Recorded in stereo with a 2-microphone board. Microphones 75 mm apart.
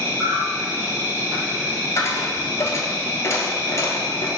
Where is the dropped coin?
40° left (ahead or behind), 0.7 m.